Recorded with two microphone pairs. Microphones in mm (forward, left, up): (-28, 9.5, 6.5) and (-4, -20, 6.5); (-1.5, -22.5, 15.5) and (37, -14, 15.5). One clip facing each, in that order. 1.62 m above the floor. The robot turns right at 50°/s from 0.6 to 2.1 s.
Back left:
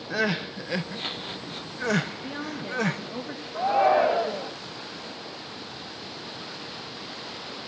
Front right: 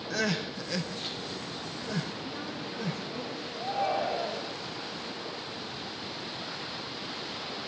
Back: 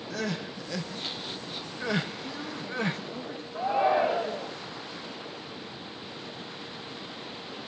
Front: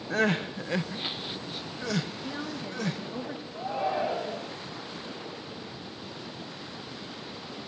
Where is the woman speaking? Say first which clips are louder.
Back left 4 dB, front 1 dB; 85° left, 3.5 m.